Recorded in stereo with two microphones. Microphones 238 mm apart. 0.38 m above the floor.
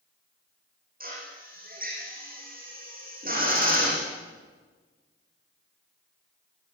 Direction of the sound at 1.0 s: 35° right (ahead or behind).